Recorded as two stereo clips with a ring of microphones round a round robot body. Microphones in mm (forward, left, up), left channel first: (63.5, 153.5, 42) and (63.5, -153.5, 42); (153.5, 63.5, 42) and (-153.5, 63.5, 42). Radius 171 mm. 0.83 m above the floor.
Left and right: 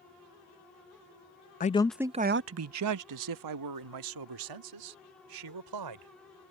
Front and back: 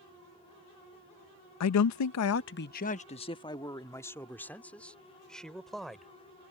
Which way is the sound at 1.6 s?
30° left.